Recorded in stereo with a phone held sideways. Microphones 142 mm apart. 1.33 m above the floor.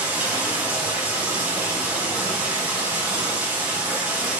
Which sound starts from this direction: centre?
Running water, at 0.0 s.